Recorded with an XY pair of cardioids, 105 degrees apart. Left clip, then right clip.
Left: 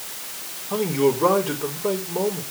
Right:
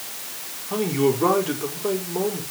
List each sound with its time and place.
0.7 s a man speaking: 10° right, 4.5 m